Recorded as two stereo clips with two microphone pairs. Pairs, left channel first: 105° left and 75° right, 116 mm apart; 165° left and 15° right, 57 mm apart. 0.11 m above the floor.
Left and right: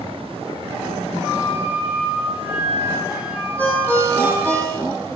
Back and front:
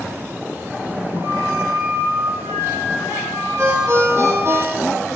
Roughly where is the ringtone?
Ahead left.